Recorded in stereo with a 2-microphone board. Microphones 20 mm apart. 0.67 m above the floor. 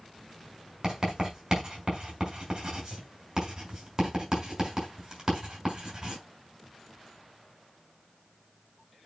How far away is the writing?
About 5.5 m.